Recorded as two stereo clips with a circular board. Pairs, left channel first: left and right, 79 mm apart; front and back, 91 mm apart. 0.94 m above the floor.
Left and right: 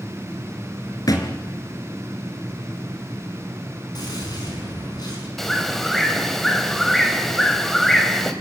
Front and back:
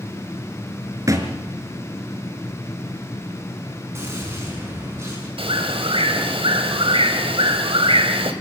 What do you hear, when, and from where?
1.1 s a thud: 125° left, 3.5 m
4.0 s a gunshot: 120° left, 9.5 m
5.4 s a bird: 175° left, 2.5 m